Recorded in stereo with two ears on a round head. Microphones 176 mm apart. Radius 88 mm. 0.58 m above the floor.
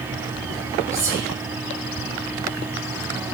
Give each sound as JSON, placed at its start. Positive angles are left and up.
{"t": 0.9, "sound": "whispering", "side_deg": -15, "distance_m": 2.5}